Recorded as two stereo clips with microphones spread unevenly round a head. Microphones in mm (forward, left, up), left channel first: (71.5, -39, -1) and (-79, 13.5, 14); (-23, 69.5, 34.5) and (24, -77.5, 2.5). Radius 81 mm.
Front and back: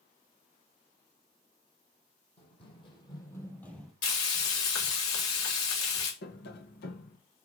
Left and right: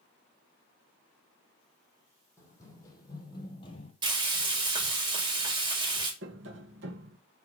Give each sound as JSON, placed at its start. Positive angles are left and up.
{"t": 2.4, "sound": "running footsteps", "azimuth_deg": 40, "distance_m": 4.0}
{"t": 4.0, "sound": "frying", "azimuth_deg": -5, "distance_m": 5.0}
{"t": 6.2, "sound": "tapping", "azimuth_deg": -50, "distance_m": 1.5}